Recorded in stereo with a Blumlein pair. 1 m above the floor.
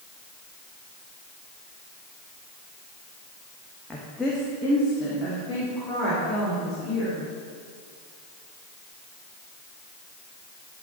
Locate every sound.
3.9 s a woman speaking: 5° left, 0.9 m; by 7.2 s 15° left, 4 m